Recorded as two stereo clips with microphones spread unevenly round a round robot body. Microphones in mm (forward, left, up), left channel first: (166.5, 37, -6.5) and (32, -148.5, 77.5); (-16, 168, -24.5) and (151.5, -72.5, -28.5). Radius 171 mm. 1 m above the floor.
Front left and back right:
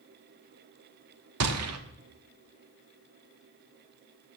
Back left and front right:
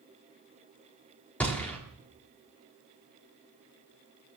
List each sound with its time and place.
1.4 s a gunshot: 150° right, 1.2 m